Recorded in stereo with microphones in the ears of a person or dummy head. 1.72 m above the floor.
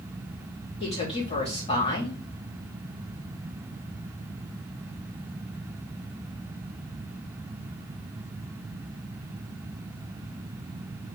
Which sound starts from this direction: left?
A woman speaking, at 0.8 s.